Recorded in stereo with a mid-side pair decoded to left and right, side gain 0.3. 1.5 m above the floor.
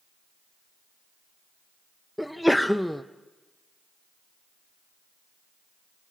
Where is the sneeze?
Straight ahead, 0.8 m.